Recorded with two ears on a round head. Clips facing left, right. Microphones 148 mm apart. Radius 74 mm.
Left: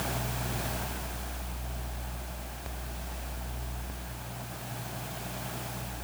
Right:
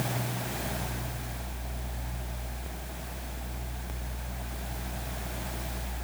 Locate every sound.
Only background noise.